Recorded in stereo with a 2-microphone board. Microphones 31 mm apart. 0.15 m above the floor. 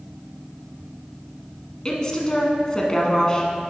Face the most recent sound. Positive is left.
turn(degrees=20)  # may be behind; listen again after turning